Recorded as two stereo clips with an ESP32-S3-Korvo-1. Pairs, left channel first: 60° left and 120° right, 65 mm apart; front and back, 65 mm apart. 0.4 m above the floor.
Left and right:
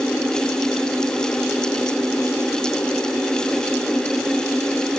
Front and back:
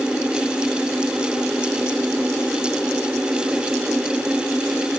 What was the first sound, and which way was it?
Only background noise.